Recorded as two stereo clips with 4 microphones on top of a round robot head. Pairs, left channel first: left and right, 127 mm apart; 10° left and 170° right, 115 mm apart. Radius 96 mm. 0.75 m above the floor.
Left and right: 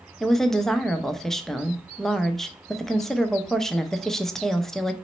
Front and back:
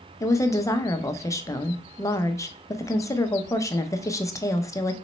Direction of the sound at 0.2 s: 5° left.